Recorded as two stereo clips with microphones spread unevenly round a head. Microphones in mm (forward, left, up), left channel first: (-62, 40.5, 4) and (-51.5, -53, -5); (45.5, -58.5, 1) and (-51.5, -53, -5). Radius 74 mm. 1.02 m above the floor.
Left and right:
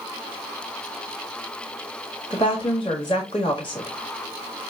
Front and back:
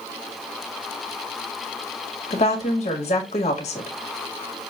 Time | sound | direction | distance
2.3 | a woman speaking | 35° left | 1.6 m